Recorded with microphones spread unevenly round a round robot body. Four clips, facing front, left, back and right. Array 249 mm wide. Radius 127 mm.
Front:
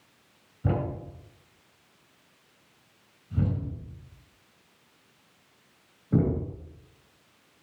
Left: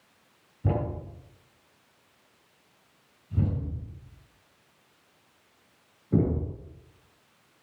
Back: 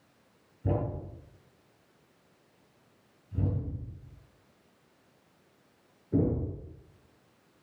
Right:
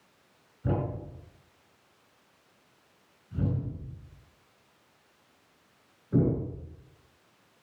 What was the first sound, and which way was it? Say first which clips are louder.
A thud: left 1 dB, front 2 dB; 30° left.